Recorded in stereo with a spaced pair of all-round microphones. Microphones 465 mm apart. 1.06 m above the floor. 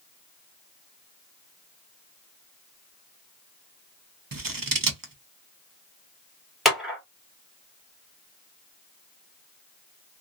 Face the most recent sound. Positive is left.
turn(degrees=0)  # may be behind; listen again after turning